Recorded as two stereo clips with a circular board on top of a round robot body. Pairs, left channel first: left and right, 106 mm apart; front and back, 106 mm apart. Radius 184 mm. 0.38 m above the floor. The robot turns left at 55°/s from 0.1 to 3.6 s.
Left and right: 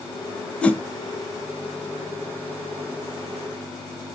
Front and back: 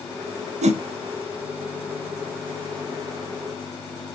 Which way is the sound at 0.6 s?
170° left.